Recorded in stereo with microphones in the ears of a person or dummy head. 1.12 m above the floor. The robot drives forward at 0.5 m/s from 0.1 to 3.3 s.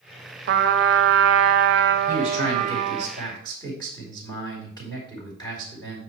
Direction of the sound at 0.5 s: 55° right (ahead or behind).